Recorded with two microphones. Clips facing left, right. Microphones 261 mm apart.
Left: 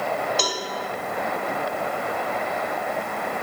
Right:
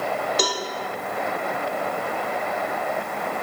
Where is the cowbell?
45° right (ahead or behind), 1.0 m.